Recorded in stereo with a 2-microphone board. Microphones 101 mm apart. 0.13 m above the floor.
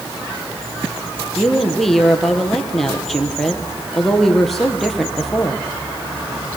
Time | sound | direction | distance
1.4 | a woman speaking | centre (ahead or behind) | 3.5 m